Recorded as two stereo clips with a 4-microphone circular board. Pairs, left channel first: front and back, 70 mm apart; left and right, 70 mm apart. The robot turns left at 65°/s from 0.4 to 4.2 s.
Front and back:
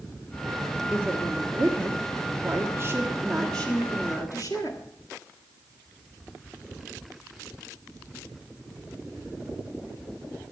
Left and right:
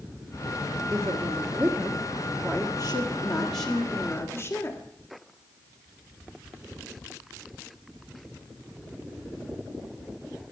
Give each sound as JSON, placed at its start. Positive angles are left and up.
{"t": 0.9, "sound": "a woman speaking", "azimuth_deg": -110, "distance_m": 1.5}